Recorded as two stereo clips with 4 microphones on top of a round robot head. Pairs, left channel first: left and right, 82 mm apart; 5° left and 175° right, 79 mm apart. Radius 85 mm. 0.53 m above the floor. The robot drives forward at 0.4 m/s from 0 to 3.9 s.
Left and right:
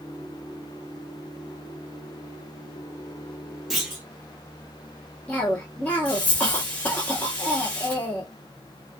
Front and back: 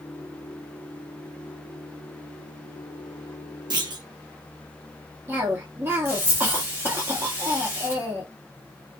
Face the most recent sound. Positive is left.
turn(degrees=155)